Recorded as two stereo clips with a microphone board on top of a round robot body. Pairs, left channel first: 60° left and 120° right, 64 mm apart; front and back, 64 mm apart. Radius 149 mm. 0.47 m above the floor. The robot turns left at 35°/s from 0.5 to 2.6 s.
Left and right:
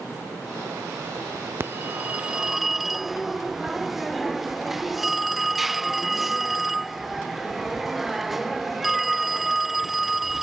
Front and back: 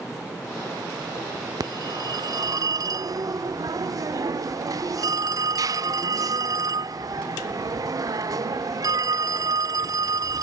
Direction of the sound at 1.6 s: 170° right.